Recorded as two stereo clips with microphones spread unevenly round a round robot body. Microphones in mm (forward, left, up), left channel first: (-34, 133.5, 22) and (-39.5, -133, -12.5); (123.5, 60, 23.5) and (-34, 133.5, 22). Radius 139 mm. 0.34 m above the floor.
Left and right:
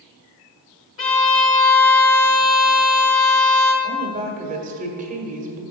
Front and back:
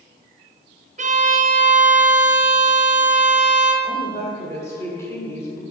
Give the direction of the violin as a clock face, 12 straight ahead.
8 o'clock.